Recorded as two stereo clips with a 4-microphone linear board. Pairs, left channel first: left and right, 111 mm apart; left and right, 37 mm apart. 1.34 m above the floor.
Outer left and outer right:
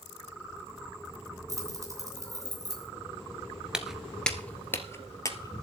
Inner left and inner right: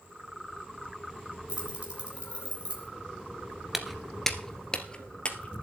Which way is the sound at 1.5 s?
30° right (ahead or behind).